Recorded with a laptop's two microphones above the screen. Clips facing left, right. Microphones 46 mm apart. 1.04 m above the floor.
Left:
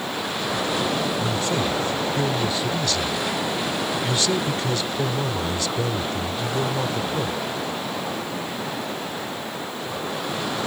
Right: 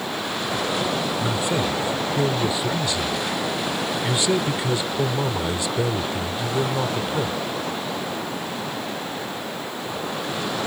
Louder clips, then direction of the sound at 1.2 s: Even; 15° right (ahead or behind).